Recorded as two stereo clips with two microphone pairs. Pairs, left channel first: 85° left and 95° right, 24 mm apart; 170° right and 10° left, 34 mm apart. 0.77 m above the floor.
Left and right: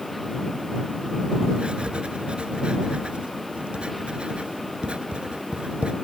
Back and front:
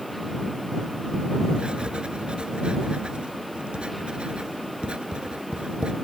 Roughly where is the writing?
Ahead right.